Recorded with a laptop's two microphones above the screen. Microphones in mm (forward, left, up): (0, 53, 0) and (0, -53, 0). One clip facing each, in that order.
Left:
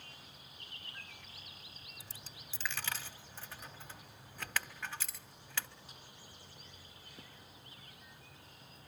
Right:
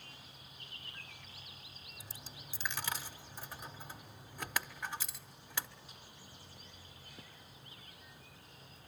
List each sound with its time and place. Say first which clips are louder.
2.0 s a dropped coin: right 4 dB; 15° right (ahead or behind), 1.1 m